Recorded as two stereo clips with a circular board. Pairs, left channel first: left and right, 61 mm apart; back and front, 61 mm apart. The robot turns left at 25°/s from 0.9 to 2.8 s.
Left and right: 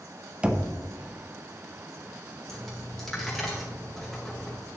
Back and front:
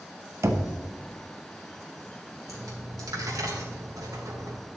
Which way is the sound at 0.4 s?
20° right.